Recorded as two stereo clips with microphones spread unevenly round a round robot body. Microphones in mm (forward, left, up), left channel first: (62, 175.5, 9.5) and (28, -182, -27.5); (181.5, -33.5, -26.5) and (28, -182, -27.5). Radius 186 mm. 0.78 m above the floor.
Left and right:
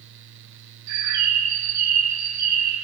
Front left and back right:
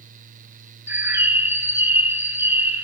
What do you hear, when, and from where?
0.9 s a bird: 55° right, 0.9 m